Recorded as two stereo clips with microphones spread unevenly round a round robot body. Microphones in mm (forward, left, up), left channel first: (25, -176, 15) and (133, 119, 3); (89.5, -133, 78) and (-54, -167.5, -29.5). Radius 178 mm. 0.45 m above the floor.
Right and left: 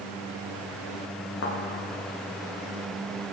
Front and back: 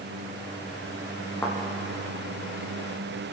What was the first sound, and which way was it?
A thud, 60° right.